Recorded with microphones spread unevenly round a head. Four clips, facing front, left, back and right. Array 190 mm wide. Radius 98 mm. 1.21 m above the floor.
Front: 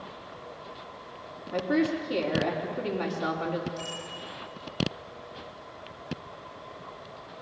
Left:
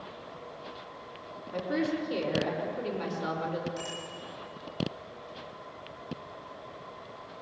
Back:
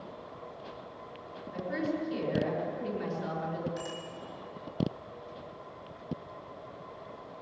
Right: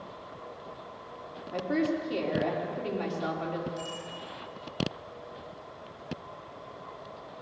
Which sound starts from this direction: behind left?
A bicycle bell, at 3.8 s.